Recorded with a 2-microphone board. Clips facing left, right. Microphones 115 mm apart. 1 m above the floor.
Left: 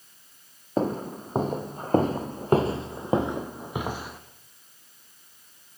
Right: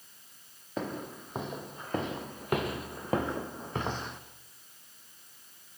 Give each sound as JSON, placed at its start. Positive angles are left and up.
{"t": 0.8, "sound": "footsteps", "side_deg": 40, "distance_m": 2.0}